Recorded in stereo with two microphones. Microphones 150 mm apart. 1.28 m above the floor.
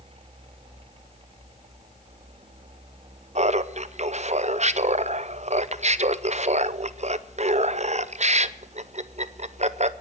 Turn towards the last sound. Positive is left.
turn(degrees=-50)  # may be behind; listen again after turning